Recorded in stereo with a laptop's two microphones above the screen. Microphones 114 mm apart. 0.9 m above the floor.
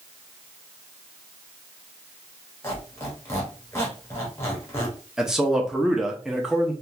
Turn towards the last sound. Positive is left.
turn(degrees=-5)  # may be behind; listen again after turning